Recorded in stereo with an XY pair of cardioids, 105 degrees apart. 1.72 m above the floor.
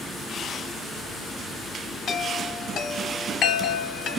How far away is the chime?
About 1.0 m.